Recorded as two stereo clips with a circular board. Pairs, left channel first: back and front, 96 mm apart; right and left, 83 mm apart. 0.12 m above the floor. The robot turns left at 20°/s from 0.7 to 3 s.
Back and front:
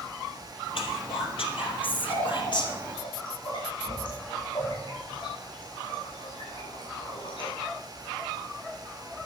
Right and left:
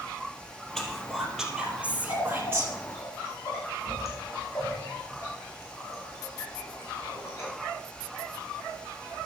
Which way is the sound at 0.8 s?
175° right.